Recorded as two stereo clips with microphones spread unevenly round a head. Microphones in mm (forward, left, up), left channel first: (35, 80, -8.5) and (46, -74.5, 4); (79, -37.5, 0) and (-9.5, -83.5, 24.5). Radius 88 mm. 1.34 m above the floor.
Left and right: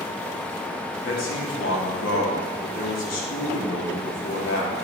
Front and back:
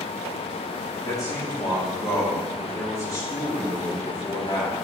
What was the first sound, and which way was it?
A man speaking, 105° left.